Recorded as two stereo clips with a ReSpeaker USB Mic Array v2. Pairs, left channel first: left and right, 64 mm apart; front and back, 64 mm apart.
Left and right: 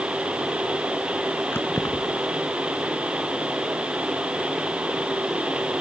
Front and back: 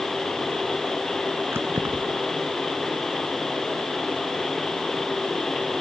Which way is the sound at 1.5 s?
140° left.